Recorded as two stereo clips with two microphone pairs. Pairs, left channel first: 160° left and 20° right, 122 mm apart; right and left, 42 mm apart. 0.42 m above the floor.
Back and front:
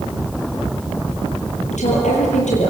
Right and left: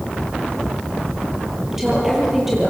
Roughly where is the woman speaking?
Behind.